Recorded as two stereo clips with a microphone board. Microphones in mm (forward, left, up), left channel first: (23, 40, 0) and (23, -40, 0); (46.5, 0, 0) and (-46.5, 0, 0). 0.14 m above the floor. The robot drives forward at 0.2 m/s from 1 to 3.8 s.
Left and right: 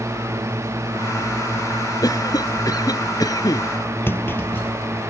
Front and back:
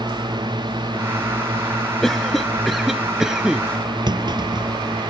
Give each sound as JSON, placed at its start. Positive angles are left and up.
{"t": 0.0, "sound": "a drone", "azimuth_deg": -145}
{"t": 2.0, "sound": "a cough", "azimuth_deg": 85}
{"t": 4.1, "sound": "a clunk", "azimuth_deg": 150}